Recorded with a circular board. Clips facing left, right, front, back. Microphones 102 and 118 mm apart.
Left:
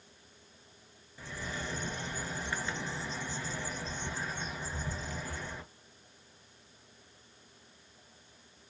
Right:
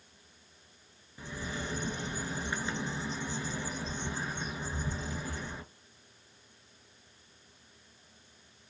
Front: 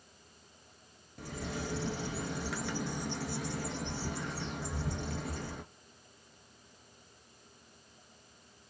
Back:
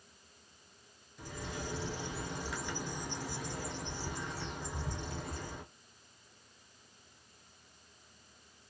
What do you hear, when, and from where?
1.2 s a bird: 20° right, 0.6 m